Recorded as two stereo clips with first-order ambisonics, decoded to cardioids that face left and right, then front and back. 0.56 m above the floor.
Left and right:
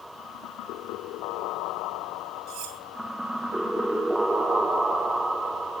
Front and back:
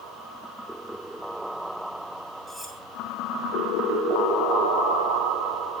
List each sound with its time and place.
2.5 s cutlery clinking: 95° right, 2 m